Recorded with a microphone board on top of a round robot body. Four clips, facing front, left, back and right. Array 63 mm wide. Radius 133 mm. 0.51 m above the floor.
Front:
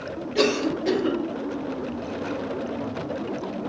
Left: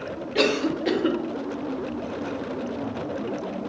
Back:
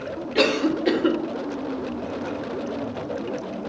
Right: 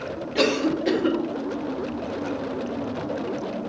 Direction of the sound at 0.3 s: 165° left.